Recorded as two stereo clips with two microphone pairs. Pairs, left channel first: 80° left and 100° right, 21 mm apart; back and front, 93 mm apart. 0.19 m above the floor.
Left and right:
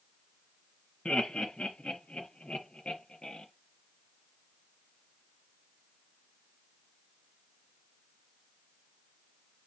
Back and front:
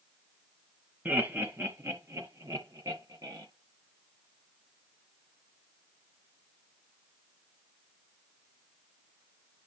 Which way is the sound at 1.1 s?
70° left.